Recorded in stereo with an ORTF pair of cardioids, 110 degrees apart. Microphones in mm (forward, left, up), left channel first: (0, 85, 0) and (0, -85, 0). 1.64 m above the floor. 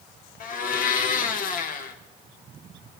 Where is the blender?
55° left, 2 m.